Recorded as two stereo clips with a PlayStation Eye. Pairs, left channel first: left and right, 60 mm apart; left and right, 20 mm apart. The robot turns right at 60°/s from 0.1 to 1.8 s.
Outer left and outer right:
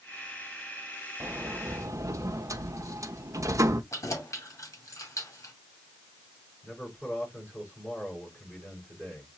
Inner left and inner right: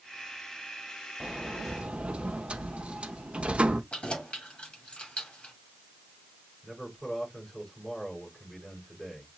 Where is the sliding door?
140° right, 0.6 m; by 3.8 s 105° right, 0.6 m.